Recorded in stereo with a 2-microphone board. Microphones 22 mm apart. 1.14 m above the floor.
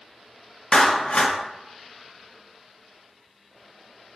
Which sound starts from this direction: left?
A clap, at 0.7 s.